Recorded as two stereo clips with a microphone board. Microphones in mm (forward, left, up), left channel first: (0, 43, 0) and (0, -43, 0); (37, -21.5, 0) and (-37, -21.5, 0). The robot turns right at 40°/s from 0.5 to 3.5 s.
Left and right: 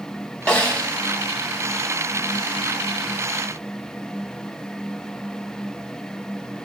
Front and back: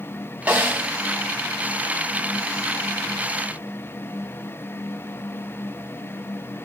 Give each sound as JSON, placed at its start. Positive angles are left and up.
{"t": 0.5, "sound": "a snare drum", "azimuth_deg": 140, "distance_m": 0.9}